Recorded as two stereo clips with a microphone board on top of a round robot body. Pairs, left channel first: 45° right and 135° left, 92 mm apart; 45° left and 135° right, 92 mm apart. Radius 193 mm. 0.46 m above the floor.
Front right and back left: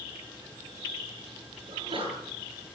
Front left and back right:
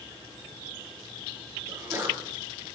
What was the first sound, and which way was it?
A sneeze, 160° left.